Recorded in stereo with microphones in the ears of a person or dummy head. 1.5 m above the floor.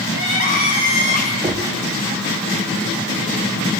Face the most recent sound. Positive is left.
turn(degrees=-15)  # may be behind; listen again after turning